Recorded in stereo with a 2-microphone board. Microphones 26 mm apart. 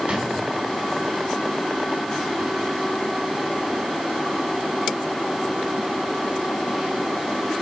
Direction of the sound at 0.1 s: 45° right (ahead or behind).